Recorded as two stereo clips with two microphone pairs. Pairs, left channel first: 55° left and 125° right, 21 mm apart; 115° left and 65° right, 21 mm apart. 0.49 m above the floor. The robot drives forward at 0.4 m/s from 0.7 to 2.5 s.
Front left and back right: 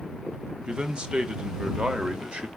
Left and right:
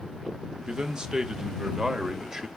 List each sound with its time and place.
0.7 s a man speaking: 105° right, 1.6 m; by 2.5 s 130° right, 1.9 m